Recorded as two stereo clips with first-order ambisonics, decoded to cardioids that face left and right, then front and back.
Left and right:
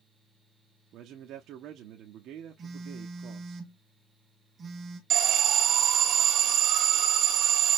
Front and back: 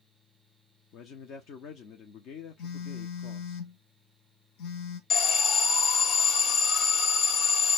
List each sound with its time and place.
0.9 s a man speaking: 45° right, 0.7 m
2.6 s a phone buzzing: 20° right, 0.9 m
5.1 s an alarm: 50° right, 1.7 m